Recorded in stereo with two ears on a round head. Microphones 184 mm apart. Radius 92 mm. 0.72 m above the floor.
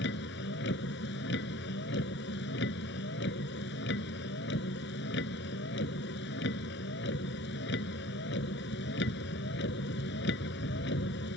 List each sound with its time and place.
0.0 s a vehicle: 60° left (ahead or behind)